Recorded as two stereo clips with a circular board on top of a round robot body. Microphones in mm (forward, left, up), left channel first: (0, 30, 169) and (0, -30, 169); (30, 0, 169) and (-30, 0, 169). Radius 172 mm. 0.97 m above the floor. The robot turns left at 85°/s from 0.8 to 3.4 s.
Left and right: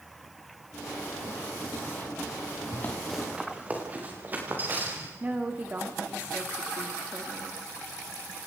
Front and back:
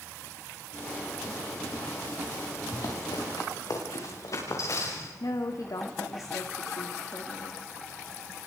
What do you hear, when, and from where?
2.7 s running footsteps: 40° left, 6.5 m; by 5.1 s 35° right, 8 m
5.2 s a woman speaking: 25° right, 2.5 m